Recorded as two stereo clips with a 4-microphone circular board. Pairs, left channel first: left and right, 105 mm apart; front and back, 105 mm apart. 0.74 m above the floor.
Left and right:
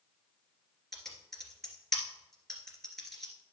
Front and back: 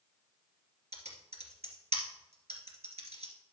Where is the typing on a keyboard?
Straight behind, 2.5 m.